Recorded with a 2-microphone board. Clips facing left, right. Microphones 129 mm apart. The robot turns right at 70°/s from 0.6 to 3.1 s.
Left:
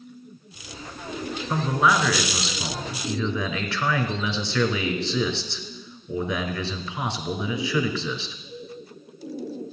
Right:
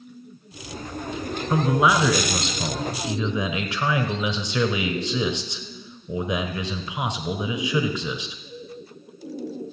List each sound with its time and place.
1.5 s a man speaking: 5° right (ahead or behind), 1.2 m; by 8.4 s 15° right (ahead or behind), 1.2 m